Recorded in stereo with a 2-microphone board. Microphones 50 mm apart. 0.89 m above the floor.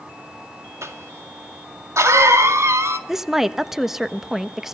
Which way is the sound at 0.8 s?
65° right (ahead or behind).